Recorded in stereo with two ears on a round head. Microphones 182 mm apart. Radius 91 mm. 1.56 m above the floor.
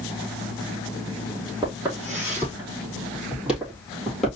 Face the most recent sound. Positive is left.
turn(degrees=0)  # may be behind; listen again after turning